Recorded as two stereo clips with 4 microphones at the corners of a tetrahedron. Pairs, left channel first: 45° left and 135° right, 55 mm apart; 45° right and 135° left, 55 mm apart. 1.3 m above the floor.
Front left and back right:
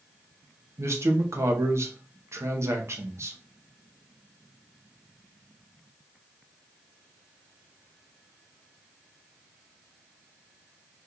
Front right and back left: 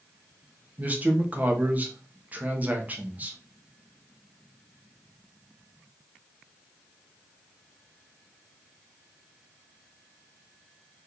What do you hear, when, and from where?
0.8 s a man speaking: 165° right, 0.8 m